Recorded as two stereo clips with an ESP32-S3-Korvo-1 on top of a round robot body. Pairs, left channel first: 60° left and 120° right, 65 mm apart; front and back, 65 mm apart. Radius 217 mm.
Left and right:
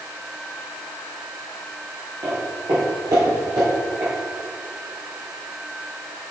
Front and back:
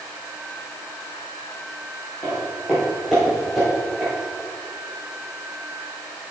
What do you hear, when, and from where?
2.2 s footsteps: 65° right, 1.6 m; by 4.1 s 105° right, 2.5 m